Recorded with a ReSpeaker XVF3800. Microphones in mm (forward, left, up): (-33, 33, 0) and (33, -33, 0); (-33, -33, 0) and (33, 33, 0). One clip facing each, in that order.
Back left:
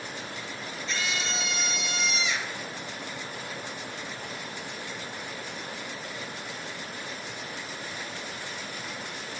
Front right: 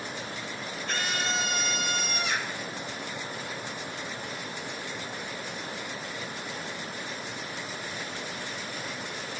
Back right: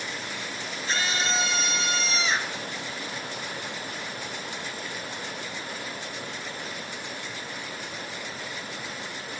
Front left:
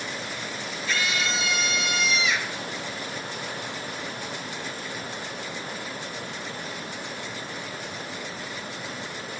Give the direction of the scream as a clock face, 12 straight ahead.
3 o'clock.